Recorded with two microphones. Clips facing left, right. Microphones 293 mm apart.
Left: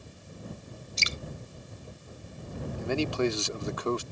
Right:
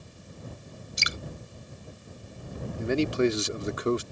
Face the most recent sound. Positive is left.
turn(degrees=-20)  # may be behind; listen again after turning